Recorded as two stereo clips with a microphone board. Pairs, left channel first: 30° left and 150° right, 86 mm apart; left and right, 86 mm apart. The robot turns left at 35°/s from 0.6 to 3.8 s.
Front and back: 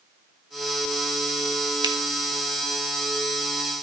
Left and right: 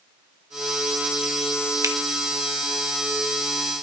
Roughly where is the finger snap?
Behind right.